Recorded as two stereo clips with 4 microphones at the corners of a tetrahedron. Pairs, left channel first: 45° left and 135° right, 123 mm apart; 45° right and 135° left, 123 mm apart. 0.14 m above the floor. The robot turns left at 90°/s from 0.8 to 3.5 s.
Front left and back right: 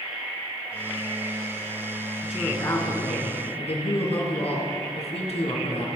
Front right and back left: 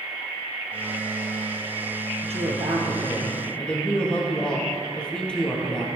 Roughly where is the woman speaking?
Behind left.